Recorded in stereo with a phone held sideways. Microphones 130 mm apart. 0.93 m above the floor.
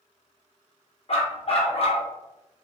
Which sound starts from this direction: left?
A dog barking, at 1.1 s.